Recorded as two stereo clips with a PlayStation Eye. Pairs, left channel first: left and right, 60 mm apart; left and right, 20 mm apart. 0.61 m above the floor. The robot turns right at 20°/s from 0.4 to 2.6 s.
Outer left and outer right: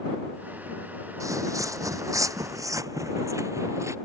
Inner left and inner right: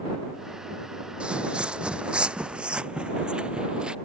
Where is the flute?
No flute in this recording.